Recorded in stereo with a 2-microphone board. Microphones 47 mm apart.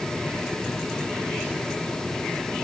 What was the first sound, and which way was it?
Only background noise.